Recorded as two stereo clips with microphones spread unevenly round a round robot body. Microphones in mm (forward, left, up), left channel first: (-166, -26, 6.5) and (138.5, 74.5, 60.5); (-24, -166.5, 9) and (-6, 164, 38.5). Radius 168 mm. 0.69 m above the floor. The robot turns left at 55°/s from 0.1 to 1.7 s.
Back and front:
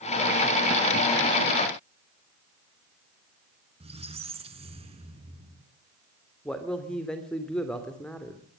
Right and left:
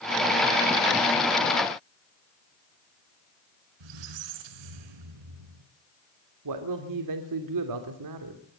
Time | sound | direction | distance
3.8 | a squeak | 90° left | 3 m
6.5 | a man speaking | 115° left | 2.5 m